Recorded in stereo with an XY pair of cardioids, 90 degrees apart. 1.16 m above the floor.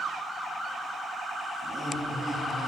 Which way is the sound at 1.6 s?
35° right.